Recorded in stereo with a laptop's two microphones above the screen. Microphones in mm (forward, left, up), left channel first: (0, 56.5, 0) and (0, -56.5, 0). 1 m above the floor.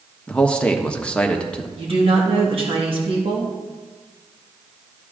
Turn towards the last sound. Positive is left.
turn(degrees=-55)  # may be behind; listen again after turning